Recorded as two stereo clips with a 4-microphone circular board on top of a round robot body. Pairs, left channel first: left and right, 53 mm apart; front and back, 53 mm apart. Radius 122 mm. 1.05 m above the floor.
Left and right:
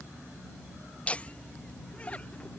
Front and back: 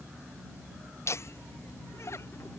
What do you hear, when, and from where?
1.1 s laughter: 25° left